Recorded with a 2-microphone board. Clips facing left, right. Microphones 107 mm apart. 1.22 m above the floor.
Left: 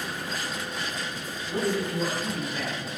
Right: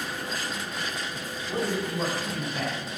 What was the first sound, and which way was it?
A man speaking, 50° right (ahead or behind).